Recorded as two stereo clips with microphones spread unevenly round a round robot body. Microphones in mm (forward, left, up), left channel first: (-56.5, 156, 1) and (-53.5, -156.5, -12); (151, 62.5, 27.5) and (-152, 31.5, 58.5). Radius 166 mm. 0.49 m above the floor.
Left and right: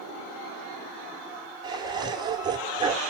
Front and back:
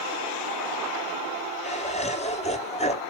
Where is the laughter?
30° right, 1.0 m.